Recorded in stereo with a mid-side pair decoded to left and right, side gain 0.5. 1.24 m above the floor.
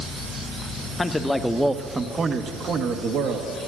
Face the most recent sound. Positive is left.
turn(degrees=-70)